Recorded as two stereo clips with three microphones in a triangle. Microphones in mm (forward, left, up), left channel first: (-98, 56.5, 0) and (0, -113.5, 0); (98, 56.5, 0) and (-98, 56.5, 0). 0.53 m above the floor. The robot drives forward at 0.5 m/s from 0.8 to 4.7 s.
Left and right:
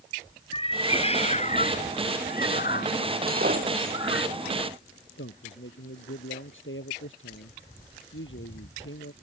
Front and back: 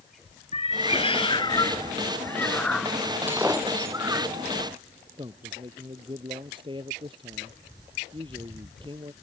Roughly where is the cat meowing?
Ahead left.